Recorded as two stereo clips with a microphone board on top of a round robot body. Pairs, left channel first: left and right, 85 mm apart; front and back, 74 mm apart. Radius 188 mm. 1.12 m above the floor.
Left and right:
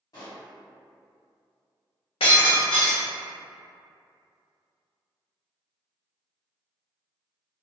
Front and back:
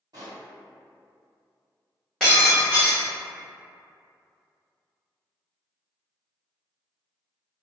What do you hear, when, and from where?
0.1 s a pop: 140° left, 0.8 m
2.2 s breaking glass: 85° left, 0.7 m